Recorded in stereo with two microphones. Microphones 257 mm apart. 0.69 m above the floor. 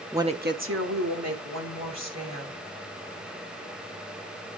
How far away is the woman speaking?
About 0.9 m.